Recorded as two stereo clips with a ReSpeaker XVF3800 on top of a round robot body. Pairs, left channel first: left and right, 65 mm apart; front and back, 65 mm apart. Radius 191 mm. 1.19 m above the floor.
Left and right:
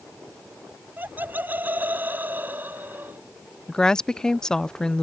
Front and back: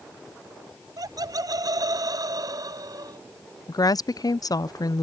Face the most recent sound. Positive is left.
turn(degrees=10)